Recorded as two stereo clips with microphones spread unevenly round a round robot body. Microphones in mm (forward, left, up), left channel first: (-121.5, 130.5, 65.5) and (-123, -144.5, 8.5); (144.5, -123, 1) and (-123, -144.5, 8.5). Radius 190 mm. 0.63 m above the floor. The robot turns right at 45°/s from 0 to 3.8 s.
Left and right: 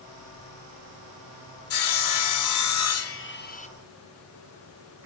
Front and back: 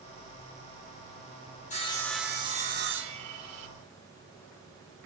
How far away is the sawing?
About 1.0 m.